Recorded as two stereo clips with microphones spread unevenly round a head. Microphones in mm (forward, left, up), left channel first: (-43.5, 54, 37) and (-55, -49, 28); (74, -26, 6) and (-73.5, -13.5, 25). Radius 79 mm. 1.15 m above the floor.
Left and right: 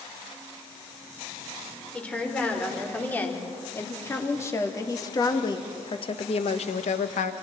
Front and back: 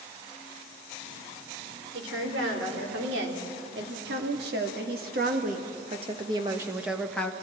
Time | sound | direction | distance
1.9 | a woman speaking | 160° left | 4 m